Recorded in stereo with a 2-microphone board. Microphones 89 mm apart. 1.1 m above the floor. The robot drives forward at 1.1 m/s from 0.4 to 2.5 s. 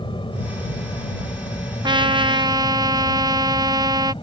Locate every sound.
0.0 s an aircraft: 70° left (ahead or behind); by 4.2 s 75° left (ahead or behind)
1.8 s a trumpet: 55° right (ahead or behind); by 4.1 s 50° right (ahead or behind)